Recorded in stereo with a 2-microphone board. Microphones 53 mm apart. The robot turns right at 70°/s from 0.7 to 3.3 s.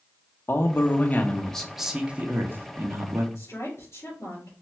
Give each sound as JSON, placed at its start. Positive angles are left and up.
{"t": 0.5, "sound": "a man speaking", "azimuth_deg": 110, "distance_m": 0.9}
{"t": 3.4, "sound": "a woman speaking", "side_deg": 75, "distance_m": 3.0}